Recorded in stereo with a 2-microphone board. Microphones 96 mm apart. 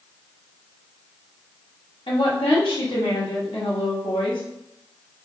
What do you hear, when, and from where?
2.1 s a woman speaking: 85° left, 1.7 m